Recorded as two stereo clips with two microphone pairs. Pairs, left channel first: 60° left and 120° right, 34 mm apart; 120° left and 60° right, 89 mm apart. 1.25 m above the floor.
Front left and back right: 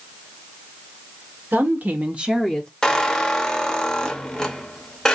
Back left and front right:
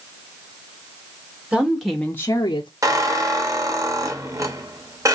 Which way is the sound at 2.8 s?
10° right.